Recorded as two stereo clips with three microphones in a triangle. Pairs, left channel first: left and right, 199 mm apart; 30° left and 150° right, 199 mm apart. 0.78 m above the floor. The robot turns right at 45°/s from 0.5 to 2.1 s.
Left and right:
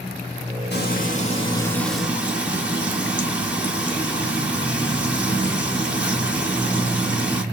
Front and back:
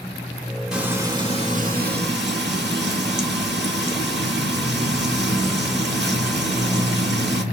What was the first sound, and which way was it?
Frying, 125° left.